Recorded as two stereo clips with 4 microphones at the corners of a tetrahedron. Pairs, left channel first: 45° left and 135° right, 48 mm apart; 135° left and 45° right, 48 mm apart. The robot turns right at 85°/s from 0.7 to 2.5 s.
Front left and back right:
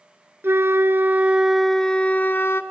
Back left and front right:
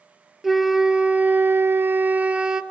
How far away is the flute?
About 0.8 m.